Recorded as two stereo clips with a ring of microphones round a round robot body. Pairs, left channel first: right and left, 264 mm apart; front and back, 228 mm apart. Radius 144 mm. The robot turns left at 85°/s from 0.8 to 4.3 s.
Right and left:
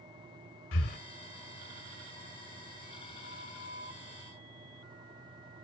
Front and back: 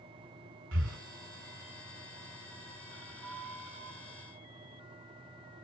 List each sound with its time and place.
0.7 s breathing: 135° right, 1.4 m; by 1.0 s 150° right, 1.4 m
3.2 s a flute: 140° right, 4.5 m; by 4.0 s 150° left, 4.5 m